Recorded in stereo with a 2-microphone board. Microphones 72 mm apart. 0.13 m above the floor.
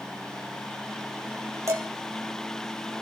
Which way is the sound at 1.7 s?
40° right (ahead or behind).